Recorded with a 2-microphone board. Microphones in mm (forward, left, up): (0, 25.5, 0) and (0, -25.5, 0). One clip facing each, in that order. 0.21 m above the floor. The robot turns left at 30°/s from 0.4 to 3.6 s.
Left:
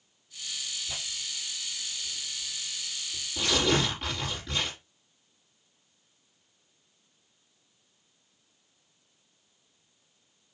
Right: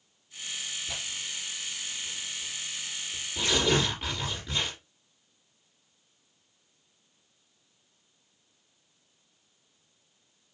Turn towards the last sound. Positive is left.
turn(degrees=0)  # may be behind; listen again after turning